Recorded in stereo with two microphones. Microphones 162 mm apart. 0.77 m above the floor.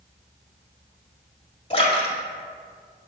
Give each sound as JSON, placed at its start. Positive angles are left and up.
{"t": 1.7, "sound": "a splash", "side_deg": 30, "distance_m": 2.5}